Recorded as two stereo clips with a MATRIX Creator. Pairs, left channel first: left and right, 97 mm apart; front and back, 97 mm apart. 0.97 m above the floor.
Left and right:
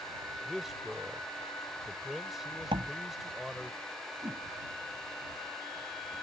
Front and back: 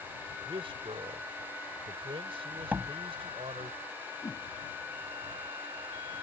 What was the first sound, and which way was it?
A man speaking, 175° right.